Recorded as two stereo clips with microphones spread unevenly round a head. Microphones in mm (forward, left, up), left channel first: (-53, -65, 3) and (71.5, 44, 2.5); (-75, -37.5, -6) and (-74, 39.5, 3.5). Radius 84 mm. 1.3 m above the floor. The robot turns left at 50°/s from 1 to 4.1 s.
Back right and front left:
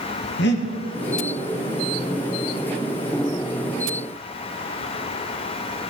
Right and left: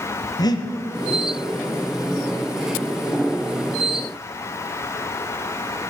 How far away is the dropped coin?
I don't hear a dropped coin.